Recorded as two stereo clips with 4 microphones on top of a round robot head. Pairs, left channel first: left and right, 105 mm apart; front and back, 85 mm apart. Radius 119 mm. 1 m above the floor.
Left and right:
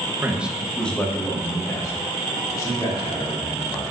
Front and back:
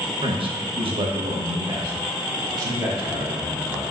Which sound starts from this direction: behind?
A man speaking, at 0.2 s.